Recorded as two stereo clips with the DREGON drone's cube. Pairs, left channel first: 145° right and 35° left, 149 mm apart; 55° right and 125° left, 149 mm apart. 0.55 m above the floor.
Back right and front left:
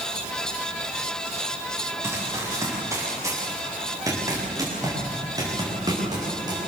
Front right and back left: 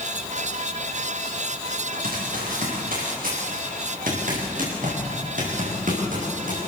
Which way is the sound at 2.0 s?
105° left.